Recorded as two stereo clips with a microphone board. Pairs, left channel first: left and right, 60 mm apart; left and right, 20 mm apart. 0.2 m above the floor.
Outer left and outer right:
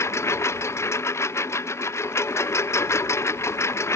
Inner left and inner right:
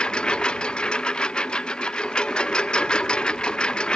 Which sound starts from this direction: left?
A lawn mower, at 0.0 s.